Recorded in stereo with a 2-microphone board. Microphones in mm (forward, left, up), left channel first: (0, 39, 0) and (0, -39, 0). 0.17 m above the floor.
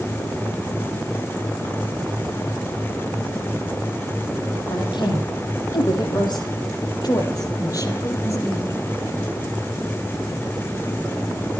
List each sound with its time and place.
4.7 s a woman speaking: 75° left (ahead or behind), 8 m; by 8.8 s 35° left (ahead or behind), 6 m